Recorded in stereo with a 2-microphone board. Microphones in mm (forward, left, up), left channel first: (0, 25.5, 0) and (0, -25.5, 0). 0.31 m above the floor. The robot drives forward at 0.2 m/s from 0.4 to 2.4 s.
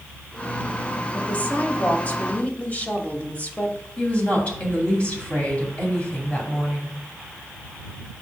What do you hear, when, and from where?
1.1 s a woman speaking: 30° left (ahead or behind), 1.0 m
4.0 s a woman speaking: 25° left (ahead or behind), 2.5 m